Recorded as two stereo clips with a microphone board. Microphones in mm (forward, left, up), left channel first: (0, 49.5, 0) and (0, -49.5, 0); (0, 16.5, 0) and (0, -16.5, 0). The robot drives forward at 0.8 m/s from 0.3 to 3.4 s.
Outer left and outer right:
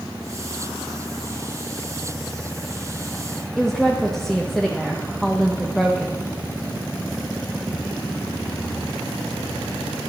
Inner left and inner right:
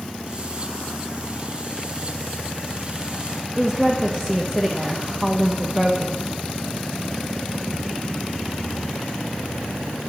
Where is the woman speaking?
5° left (ahead or behind), 0.8 m.